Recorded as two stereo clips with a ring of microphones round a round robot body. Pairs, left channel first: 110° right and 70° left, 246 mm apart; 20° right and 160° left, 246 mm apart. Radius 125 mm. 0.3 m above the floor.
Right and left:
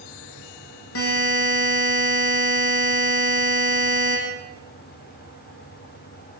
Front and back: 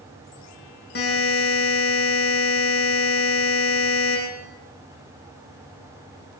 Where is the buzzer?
75° right, 8.5 m.